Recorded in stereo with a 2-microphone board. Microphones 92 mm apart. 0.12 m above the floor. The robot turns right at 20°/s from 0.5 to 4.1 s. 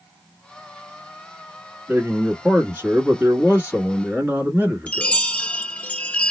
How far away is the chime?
About 0.6 m.